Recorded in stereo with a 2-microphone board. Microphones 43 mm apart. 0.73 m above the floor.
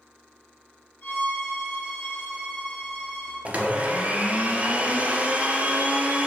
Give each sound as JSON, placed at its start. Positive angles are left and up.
{"t": 1.0, "sound": "a violin", "side_deg": 40, "distance_m": 1.8}
{"t": 3.5, "sound": "a blender", "side_deg": -35, "distance_m": 0.5}